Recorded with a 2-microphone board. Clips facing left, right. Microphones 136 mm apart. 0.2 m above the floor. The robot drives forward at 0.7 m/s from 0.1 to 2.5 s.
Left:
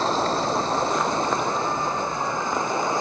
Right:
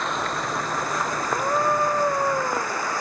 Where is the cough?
I don't hear a cough.